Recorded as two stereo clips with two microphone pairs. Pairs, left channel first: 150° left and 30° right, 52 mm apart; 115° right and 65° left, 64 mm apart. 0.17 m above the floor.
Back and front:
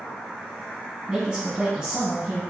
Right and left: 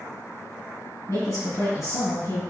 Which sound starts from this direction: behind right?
A woman speaking, at 1.1 s.